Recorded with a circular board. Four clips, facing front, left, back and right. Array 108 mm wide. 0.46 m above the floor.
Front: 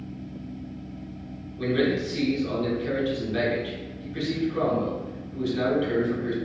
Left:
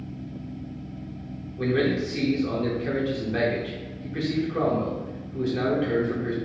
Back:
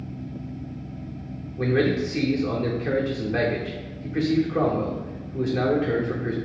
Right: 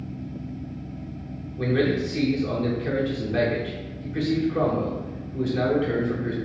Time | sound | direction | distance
1.6 | a man speaking | 170° left | 0.7 m